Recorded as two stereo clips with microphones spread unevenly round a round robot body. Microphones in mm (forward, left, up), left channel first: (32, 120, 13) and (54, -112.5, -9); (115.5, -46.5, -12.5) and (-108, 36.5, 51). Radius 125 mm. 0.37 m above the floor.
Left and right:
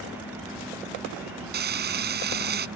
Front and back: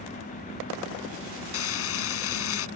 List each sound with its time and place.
1.5 s frying: 40° right